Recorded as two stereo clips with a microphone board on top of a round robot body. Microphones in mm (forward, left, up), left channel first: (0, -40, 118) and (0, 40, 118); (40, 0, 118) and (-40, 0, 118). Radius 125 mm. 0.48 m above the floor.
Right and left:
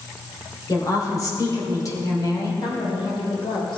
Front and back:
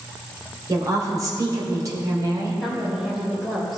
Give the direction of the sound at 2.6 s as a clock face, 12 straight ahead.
3 o'clock.